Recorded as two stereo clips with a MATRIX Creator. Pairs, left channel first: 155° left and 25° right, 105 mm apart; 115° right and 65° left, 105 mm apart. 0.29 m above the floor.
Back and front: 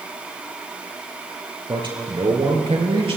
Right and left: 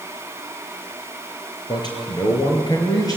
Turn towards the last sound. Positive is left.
turn(degrees=-55)